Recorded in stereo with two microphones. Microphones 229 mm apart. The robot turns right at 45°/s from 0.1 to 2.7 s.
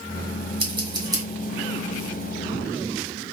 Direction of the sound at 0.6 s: 25° right (ahead or behind).